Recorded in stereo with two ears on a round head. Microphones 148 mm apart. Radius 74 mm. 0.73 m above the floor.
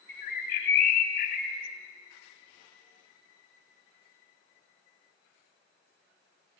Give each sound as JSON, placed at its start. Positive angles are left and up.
{"t": 0.1, "sound": "a bird", "side_deg": 55, "distance_m": 0.8}